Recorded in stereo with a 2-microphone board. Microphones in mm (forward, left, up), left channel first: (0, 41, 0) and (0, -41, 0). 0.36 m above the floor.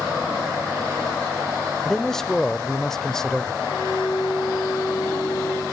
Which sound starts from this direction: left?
A violin, at 3.6 s.